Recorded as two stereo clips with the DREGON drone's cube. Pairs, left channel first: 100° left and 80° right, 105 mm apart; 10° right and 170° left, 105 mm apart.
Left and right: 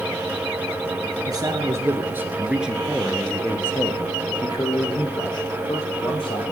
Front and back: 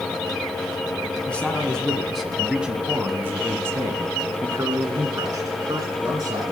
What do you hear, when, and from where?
1.3 s a man speaking: 80° right, 1.4 m; by 6.5 s 120° left, 2.5 m